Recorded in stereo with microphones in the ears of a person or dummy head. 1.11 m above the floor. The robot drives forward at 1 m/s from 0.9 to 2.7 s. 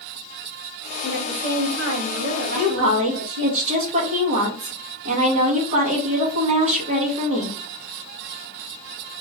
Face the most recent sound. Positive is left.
turn(degrees=-35)  # may be behind; listen again after turning